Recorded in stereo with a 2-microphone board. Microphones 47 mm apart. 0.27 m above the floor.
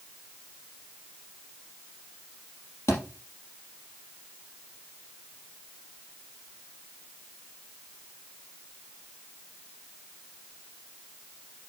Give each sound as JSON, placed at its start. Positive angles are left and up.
{"t": 2.9, "sound": "a thud", "side_deg": 70, "distance_m": 3.5}